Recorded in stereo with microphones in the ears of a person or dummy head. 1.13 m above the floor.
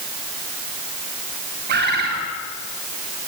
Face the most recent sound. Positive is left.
turn(degrees=-55)  # may be behind; listen again after turning